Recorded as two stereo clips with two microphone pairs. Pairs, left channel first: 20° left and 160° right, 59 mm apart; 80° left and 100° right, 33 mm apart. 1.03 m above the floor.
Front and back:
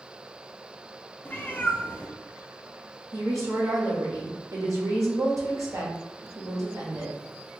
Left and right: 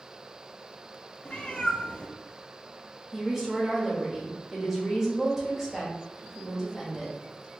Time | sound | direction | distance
1.2 | a cat meowing | 55° left | 0.6 m
3.1 | a woman speaking | 175° right | 1.6 m